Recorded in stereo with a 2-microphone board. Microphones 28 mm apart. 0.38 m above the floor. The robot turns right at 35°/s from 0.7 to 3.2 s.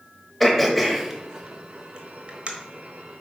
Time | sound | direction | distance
0.4 | throat clearing | 5° left (ahead or behind) | 1.3 m